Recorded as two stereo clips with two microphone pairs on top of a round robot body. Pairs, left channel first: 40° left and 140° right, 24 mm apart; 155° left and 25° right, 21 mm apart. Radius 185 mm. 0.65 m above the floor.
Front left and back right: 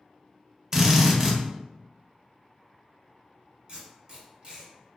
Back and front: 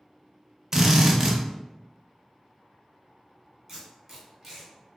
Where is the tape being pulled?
95° right, 1.3 m.